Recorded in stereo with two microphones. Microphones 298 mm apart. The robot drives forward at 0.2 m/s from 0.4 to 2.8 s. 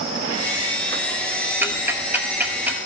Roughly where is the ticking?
Centre.